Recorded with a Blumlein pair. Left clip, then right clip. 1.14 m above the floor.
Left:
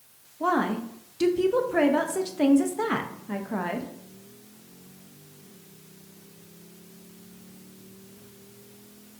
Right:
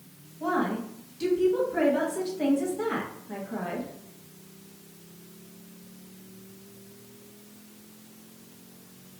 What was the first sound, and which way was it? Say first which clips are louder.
A woman speaking: left 3 dB; 30° left.